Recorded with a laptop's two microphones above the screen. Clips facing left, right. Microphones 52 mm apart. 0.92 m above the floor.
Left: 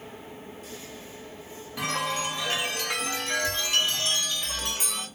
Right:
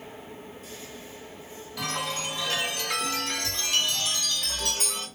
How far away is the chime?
About 1.8 m.